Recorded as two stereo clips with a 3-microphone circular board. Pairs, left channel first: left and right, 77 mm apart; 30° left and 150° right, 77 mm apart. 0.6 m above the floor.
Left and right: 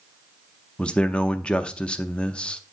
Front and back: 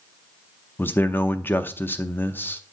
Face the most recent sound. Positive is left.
turn(degrees=35)